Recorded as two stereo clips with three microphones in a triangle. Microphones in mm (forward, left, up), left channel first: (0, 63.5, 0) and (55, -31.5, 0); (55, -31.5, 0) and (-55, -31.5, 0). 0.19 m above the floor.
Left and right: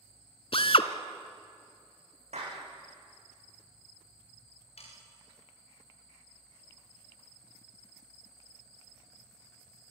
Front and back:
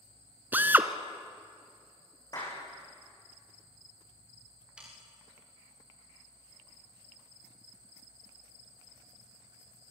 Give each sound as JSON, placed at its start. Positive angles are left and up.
{"t": 0.5, "sound": "a drill", "azimuth_deg": 110, "distance_m": 1.2}
{"t": 2.3, "sound": "a clap", "azimuth_deg": -55, "distance_m": 9.5}
{"t": 4.8, "sound": "sawing", "azimuth_deg": 100, "distance_m": 9.0}